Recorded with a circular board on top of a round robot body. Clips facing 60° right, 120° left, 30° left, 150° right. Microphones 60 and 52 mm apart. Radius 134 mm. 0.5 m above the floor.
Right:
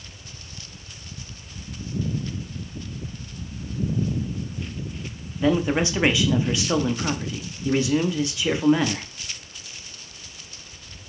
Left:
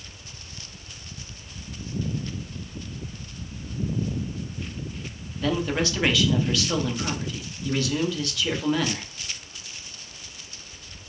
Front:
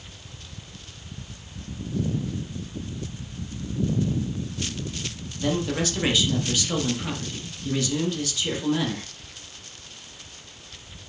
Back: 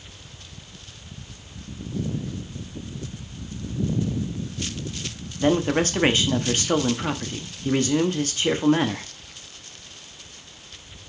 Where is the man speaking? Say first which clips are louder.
Right 4 dB, back 5 dB; 120° right, 0.9 m.